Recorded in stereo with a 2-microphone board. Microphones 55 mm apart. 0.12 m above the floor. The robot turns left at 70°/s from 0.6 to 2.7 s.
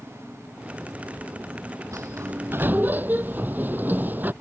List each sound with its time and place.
1.9 s a sliding door: 90° right; by 4.3 s 145° right